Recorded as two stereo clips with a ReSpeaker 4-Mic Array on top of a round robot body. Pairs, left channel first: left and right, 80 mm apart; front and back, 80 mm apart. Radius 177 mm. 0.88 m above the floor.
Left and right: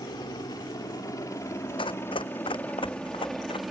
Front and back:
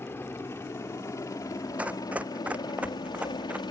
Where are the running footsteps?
105° left.